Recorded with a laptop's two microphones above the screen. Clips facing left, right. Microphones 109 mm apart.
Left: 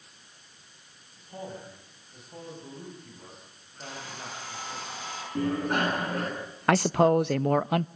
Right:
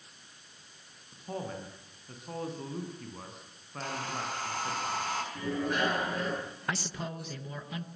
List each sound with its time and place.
1.1 s a man speaking: 85° right, 9 m
3.8 s a hair dryer: 50° right (ahead or behind), 5 m
5.3 s a bicycle bell: 50° left (ahead or behind), 8 m
6.7 s a man speaking: 60° left (ahead or behind), 0.5 m